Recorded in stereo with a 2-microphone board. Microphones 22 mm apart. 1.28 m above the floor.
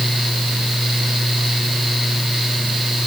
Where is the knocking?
I don't hear knocking.